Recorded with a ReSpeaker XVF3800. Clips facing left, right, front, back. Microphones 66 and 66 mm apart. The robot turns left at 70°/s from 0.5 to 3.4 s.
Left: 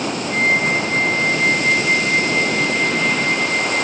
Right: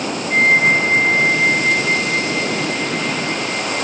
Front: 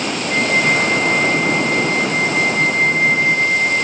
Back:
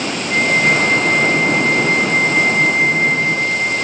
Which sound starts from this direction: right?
A flute, at 0.3 s.